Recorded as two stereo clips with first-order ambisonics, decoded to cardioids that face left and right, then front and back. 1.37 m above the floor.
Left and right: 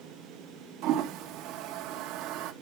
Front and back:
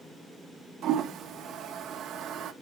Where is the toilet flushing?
130° right, 0.8 m.